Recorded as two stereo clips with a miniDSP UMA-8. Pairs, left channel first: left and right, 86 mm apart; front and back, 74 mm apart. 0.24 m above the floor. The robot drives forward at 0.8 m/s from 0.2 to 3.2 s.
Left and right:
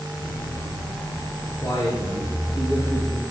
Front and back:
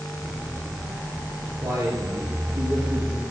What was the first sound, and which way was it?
A man speaking, 140° left.